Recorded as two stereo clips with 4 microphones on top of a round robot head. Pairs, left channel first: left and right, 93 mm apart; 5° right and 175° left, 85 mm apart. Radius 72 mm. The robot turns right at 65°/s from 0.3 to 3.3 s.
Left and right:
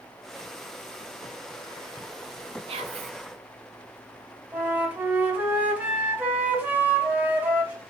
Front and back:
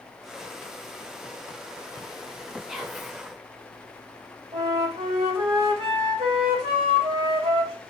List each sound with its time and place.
2.7 s whispering: 100° right, 0.7 m; by 3.1 s 70° right, 0.7 m
4.5 s a flute: 165° right, 1.3 m